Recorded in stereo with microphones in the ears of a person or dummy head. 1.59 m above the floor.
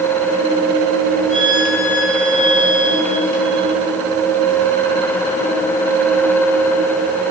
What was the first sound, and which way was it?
A violin, 40° left (ahead or behind).